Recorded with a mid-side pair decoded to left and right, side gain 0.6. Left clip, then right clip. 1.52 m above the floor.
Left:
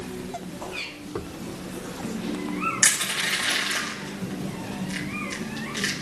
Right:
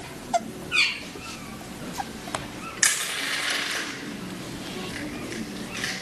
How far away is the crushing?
About 8 m.